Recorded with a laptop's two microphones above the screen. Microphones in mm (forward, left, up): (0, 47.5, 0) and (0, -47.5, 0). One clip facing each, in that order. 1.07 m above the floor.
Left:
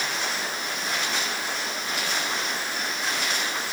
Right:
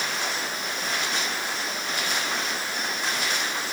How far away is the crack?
No crack in this recording.